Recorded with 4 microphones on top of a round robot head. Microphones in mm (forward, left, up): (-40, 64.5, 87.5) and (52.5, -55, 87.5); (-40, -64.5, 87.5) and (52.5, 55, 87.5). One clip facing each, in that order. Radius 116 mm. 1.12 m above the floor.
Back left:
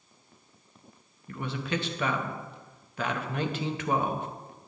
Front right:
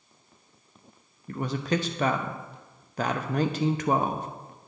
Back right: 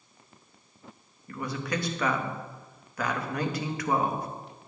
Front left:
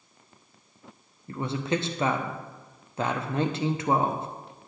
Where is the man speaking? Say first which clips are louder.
Front right 5 dB, front left 4 dB; 10° right, 0.7 m.